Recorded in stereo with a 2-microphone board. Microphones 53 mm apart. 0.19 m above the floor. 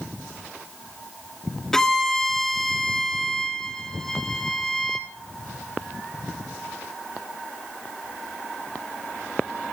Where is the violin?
10° left (ahead or behind), 0.7 m.